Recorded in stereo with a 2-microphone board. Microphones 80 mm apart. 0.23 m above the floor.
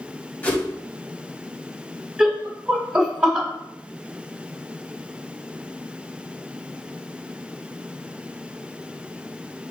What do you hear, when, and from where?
0.4 s a whoosh: 20° left (ahead or behind), 1.5 m
2.2 s laughter: 10° right (ahead or behind), 1.6 m